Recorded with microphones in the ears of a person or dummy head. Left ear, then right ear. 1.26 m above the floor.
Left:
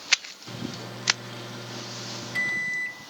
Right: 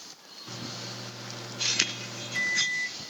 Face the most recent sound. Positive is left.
turn(degrees=5)  # may be behind; listen again after turning